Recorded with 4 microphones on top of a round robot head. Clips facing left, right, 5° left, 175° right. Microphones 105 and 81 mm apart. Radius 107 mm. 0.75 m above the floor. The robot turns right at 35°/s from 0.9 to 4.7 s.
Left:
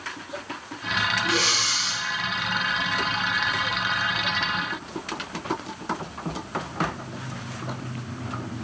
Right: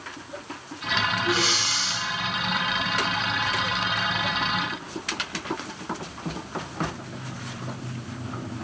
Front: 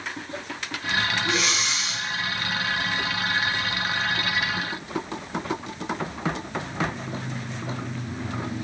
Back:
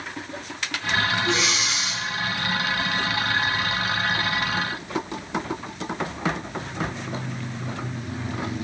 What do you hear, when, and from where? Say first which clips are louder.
1.2 s breathing: right 1 dB, back 1 dB; 85° left, 2.5 m; by 2.0 s 115° left, 2.5 m